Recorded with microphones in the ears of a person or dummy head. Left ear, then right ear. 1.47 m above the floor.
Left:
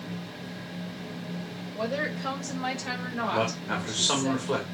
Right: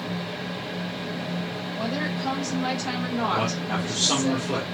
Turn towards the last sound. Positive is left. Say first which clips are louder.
# right 2 dB
turn(degrees=35)  # may be behind; listen again after turning